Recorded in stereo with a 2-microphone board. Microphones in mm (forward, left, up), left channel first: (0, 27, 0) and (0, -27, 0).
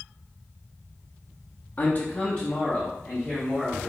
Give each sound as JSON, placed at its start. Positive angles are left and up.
{"t": 1.8, "sound": "a man speaking", "side_deg": 35, "distance_m": 0.6}